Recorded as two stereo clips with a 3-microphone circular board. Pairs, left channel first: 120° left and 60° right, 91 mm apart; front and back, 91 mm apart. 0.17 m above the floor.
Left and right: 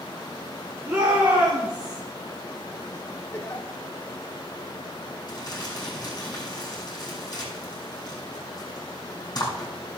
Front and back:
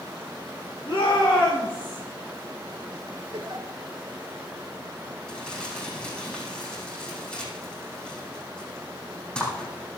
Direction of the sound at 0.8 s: 20° left.